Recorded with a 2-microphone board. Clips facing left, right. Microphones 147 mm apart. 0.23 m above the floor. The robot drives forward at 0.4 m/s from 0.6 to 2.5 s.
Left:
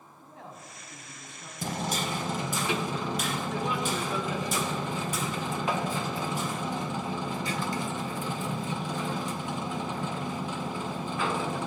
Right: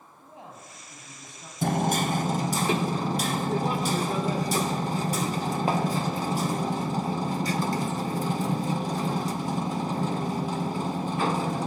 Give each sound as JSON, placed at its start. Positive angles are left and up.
{"t": 0.2, "sound": "a man speaking", "side_deg": -15, "distance_m": 2.0}
{"t": 1.6, "sound": "hammering", "side_deg": -50, "distance_m": 0.5}